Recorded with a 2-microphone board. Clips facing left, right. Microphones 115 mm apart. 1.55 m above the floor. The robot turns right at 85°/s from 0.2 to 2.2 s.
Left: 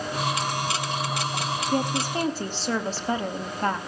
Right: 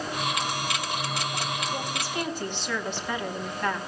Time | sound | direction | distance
1.7 | a woman speaking | 100° left | 2.5 m